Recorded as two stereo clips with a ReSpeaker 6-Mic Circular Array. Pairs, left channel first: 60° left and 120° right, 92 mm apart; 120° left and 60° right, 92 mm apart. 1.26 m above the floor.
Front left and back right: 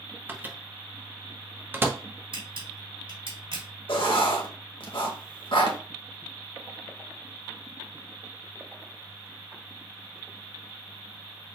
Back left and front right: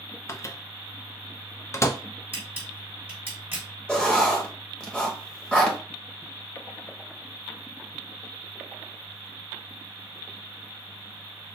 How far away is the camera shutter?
About 2.5 m.